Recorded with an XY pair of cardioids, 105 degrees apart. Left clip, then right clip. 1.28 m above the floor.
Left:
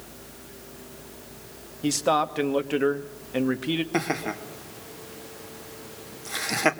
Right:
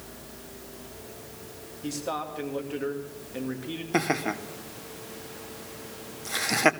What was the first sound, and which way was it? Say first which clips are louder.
A man speaking: left 9 dB; 60° left.